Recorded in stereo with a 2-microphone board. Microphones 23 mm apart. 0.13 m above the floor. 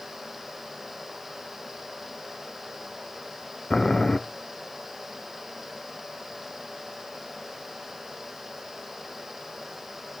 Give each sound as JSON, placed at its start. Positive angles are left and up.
{"t": 3.7, "sound": "boiling", "side_deg": 20, "distance_m": 0.8}